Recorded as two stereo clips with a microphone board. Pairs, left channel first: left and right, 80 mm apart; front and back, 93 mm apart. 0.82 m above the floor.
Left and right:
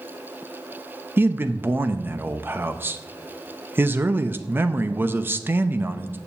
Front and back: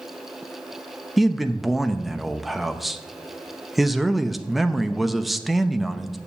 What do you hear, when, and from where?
1.2 s a man speaking: 90° right, 0.7 m